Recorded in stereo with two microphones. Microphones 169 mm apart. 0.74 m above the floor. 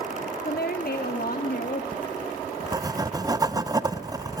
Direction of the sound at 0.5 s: 60° left (ahead or behind).